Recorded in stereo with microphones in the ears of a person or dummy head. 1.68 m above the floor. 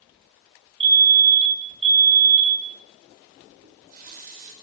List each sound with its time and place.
0.8 s a fire alarm: 55° right (ahead or behind), 1.7 m
3.6 s a running tap: 40° right (ahead or behind), 2.5 m